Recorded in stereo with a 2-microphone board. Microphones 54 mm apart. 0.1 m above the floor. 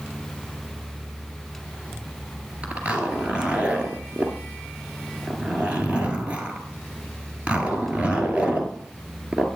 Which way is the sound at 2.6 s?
25° right (ahead or behind).